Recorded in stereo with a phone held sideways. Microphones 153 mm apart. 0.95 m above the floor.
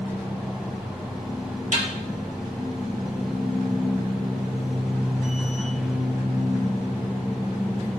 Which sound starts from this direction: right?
A snare drum, at 1.7 s.